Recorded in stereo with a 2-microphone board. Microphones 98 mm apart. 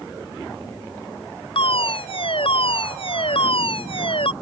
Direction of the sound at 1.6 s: 70° left (ahead or behind).